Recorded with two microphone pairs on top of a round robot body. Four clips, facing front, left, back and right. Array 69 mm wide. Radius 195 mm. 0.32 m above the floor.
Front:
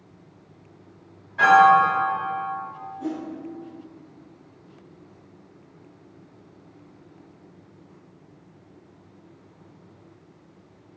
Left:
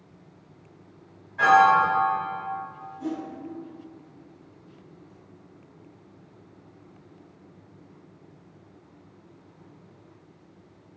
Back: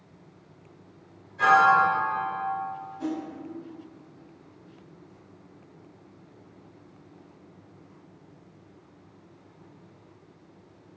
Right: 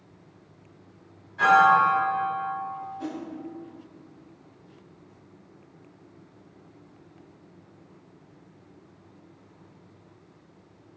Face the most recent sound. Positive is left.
turn(degrees=-130)